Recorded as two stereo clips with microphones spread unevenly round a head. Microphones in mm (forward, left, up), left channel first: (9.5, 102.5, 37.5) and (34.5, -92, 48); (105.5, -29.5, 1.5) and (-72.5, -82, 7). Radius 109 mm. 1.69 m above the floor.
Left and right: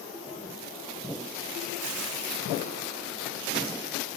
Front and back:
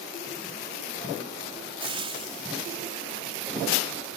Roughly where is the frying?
Right.